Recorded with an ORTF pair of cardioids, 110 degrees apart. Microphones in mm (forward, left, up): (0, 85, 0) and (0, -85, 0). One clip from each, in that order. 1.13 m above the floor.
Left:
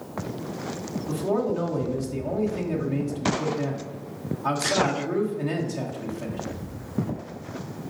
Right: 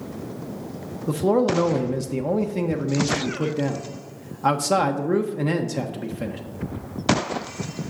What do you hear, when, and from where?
1.1 s a man speaking: 55° right, 0.9 m